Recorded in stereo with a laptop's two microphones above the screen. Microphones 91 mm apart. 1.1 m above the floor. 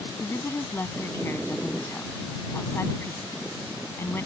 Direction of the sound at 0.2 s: 25° left (ahead or behind).